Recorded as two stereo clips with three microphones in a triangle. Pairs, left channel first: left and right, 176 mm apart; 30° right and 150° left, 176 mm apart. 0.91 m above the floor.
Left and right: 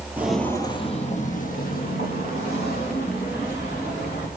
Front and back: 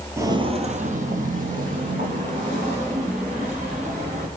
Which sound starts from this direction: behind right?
Footsteps, at 0.2 s.